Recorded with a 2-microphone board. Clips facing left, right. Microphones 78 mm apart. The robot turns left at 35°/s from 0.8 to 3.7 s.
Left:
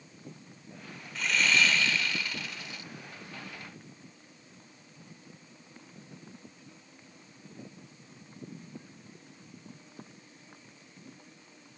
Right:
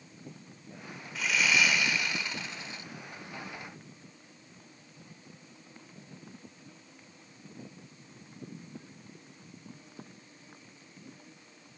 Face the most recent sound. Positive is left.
turn(degrees=-100)